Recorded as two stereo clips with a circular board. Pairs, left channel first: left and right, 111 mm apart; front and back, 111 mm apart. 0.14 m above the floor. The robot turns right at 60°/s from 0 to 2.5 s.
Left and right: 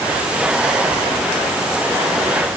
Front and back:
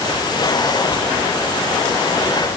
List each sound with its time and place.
Only background noise.